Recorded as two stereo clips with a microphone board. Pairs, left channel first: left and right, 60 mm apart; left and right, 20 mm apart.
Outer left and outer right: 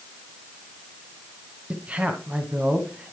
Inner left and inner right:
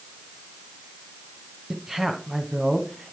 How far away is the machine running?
I don't hear a machine running.